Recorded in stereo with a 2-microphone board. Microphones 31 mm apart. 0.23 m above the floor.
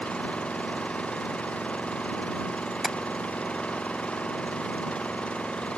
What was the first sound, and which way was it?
An engine running, 40° left (ahead or behind).